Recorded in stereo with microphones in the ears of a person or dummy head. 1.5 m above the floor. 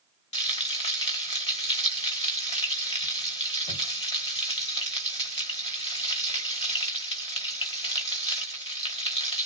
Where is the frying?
30° left (ahead or behind), 1.3 m.